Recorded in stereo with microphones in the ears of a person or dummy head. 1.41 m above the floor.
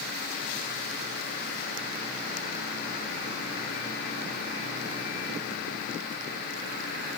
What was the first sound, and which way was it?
Only background noise.